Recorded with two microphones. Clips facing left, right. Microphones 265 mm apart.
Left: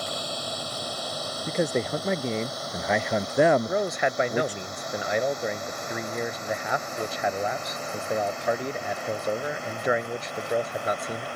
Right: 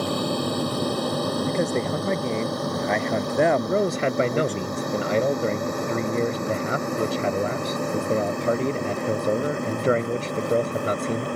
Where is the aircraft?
65° right (ahead or behind); by 11.4 s 55° right (ahead or behind).